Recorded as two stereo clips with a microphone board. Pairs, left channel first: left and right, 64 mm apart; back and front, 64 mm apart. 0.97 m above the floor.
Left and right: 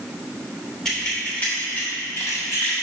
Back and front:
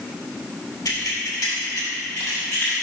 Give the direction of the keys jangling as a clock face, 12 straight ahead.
6 o'clock.